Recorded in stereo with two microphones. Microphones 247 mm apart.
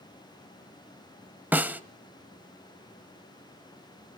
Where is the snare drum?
5° right (ahead or behind), 0.6 m.